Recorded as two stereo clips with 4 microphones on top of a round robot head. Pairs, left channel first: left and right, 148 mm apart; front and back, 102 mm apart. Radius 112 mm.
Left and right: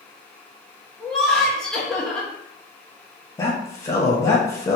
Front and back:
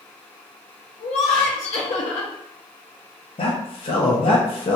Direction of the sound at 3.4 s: 20° left.